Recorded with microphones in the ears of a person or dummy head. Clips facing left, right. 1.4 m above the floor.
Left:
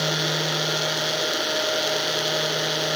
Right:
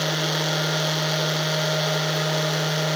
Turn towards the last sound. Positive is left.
No sound to turn to.